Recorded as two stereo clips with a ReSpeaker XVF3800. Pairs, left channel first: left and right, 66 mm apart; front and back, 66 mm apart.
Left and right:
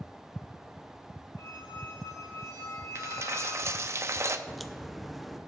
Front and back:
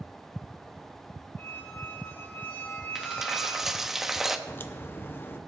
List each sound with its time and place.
1.4 s a squeak: 60° left, 2 m
3.0 s a dropped coin: 100° right, 0.6 m
4.5 s a crack: straight ahead, 0.6 m